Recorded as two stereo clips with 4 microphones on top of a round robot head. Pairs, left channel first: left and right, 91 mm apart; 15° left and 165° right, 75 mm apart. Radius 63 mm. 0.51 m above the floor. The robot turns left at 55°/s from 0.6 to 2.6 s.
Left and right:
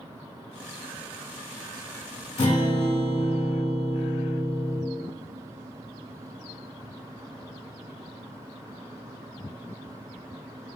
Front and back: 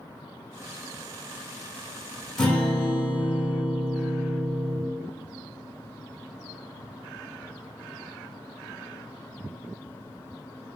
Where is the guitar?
95° left, 1.0 m; by 4.8 s 85° left, 1.0 m.